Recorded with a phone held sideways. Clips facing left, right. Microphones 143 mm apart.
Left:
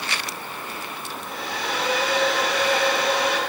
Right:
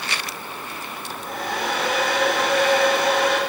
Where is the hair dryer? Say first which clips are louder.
Right 2 dB; 50° right (ahead or behind), 9 m.